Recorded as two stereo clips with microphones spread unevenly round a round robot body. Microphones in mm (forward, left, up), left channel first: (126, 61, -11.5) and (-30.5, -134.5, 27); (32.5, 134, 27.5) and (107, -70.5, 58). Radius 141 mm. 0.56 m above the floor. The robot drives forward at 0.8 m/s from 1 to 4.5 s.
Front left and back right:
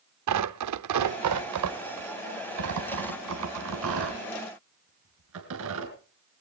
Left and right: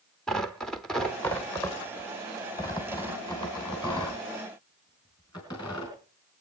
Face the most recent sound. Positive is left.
turn(degrees=-175)